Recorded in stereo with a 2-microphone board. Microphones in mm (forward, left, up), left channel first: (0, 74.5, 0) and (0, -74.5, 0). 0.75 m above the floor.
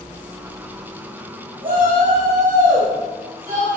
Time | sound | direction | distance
1.6 | a shout | 75° right (ahead or behind) | 4.5 m